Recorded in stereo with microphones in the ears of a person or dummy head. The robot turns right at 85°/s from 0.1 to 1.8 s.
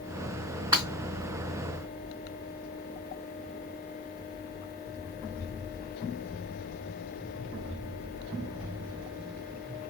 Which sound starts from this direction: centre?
Breaking glass, at 0.7 s.